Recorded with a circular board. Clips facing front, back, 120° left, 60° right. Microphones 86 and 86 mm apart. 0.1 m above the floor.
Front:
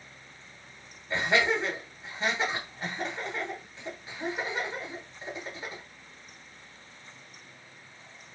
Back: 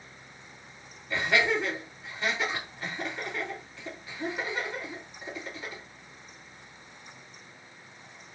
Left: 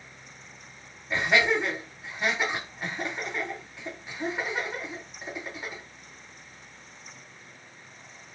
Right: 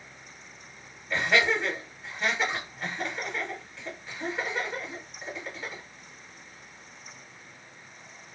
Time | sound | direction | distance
1.1 | laughter | 45° left | 1.9 m